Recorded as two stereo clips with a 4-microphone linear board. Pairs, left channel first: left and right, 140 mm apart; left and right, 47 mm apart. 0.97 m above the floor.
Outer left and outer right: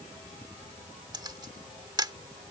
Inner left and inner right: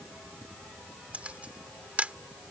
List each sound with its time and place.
1.1 s a camera shutter: 30° right (ahead or behind)